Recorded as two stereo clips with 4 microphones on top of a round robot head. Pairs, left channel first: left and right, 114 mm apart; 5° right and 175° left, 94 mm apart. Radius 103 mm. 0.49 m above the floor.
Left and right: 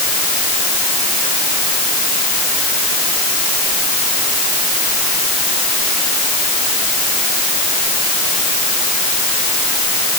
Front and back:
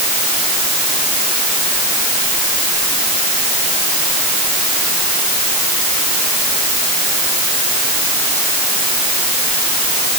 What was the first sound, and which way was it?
Only background noise.